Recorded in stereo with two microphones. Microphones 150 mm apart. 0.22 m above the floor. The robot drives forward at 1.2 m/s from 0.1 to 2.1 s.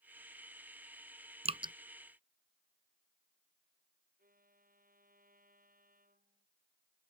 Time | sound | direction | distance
1.4 | dripping | 50° right (ahead or behind) | ?
4.2 | a violin | 80° right | ?